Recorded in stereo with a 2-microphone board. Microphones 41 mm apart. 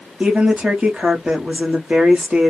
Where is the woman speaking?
35° right (ahead or behind), 0.9 m.